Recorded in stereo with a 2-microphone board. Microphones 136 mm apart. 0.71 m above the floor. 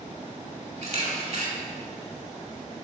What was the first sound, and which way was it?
A camera shutter, 50° right (ahead or behind).